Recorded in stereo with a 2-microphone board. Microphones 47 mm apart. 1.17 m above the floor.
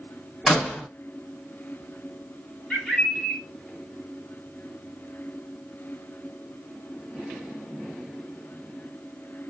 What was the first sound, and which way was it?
A door slam, 5° left (ahead or behind).